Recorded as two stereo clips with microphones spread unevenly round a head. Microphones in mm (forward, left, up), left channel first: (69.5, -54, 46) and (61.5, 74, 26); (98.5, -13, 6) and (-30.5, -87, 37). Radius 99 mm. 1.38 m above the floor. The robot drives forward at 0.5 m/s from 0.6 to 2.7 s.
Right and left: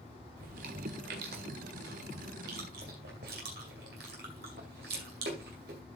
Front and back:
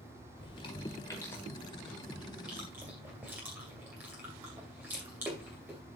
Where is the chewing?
100° left, 1.7 m; by 5.8 s 135° left, 2 m.